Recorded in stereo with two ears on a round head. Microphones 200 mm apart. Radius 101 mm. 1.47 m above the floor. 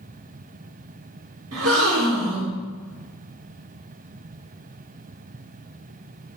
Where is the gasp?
75° right (ahead or behind), 5.5 m.